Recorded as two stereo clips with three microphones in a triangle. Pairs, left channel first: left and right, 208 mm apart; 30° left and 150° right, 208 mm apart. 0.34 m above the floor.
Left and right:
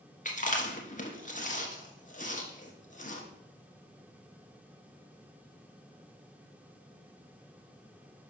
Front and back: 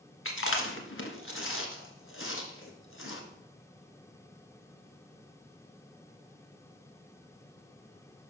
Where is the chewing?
40° left, 1.1 m.